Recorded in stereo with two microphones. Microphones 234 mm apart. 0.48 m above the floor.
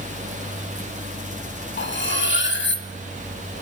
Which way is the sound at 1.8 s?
50° left (ahead or behind).